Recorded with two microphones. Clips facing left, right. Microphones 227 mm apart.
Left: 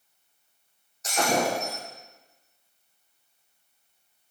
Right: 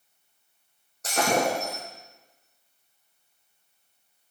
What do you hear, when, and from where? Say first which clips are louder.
1.0 s breaking glass: right 1 dB; 55° right (ahead or behind), 4.5 m